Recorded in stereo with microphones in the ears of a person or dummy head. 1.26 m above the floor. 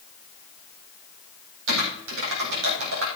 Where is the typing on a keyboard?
60° right (ahead or behind), 4 m.